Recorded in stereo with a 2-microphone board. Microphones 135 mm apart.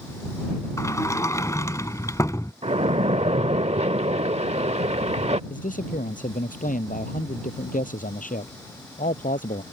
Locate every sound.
0.8 s a sliding door: 25° left (ahead or behind)
2.6 s a splash: 55° right (ahead or behind)
5.5 s a man speaking: 85° left